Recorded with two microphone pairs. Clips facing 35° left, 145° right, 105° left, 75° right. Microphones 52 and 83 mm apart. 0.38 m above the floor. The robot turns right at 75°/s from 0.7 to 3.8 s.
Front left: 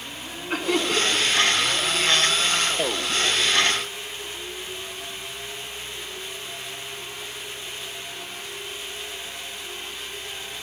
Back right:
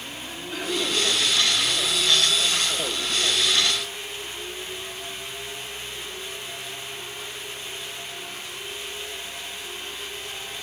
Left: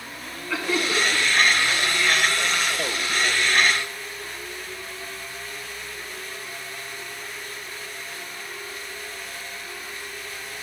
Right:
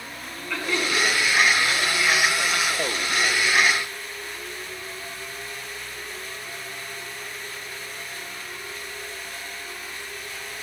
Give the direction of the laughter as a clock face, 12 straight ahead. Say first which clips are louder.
Front left 4 dB, left 1 dB; 11 o'clock.